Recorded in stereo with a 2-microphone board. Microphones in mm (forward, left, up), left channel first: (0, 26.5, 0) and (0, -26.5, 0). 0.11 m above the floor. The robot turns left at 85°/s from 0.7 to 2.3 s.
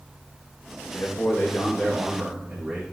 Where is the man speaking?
85° left, 5.5 m; by 2.8 s 30° right, 5.5 m.